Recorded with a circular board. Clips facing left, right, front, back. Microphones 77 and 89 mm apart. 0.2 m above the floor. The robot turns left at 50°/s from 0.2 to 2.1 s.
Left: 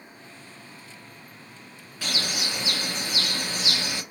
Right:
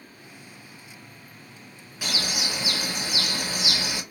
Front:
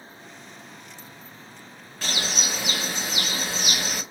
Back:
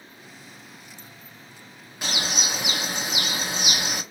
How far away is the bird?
About 1.3 m.